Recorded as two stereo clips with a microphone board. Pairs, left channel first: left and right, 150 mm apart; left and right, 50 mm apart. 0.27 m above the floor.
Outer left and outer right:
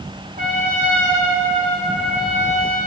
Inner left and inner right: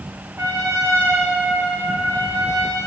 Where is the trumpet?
60° right (ahead or behind), 4 m.